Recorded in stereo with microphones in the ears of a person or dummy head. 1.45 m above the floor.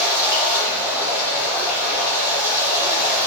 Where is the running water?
10° right (ahead or behind), 1.3 m.